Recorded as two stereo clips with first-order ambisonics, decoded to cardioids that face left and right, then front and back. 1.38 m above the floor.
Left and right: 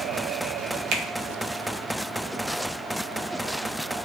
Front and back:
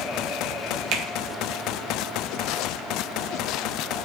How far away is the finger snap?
About 1.8 m.